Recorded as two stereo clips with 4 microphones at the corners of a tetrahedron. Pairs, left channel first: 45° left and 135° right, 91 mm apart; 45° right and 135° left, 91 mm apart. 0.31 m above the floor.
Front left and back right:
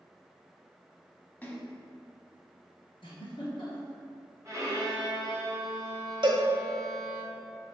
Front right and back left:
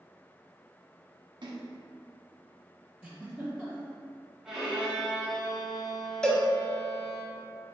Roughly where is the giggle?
Ahead left.